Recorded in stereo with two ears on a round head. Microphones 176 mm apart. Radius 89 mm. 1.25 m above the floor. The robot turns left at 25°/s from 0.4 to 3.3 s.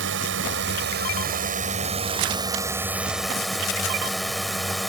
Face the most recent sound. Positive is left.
turn(degrees=180)